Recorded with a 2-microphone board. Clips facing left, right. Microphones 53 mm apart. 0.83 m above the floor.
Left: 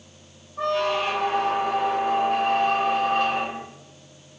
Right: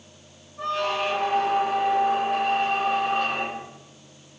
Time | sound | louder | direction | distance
0.6 | a squeak | left 2 dB | 70° left (ahead or behind) | 1.1 m